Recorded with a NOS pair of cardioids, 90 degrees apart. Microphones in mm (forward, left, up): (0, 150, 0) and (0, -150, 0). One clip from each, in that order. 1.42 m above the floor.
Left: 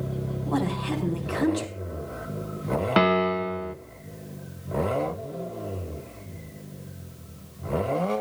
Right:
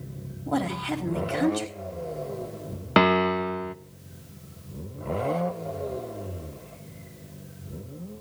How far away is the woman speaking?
About 4.5 m.